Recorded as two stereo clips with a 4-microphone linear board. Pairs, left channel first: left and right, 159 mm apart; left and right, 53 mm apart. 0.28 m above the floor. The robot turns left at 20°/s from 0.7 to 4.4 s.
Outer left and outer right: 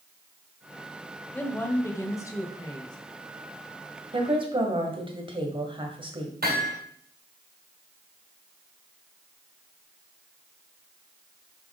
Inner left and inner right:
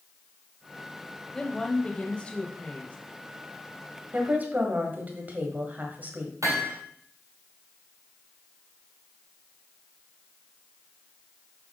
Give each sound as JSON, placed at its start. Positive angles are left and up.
{"t": 1.3, "sound": "a woman speaking", "azimuth_deg": 160, "distance_m": 1.1}
{"t": 4.1, "sound": "a woman speaking", "side_deg": -35, "distance_m": 1.6}
{"t": 6.4, "sound": "hammering", "side_deg": -75, "distance_m": 3.0}